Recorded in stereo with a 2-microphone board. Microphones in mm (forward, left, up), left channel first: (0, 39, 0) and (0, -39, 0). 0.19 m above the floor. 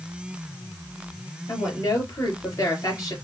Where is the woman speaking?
45° left (ahead or behind), 4 m.